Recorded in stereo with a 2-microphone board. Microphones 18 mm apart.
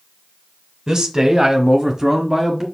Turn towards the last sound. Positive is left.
turn(degrees=-15)  # may be behind; listen again after turning